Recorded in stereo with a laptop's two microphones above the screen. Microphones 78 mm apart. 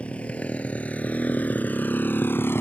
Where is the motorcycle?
15° left (ahead or behind); by 2.6 s 30° left (ahead or behind).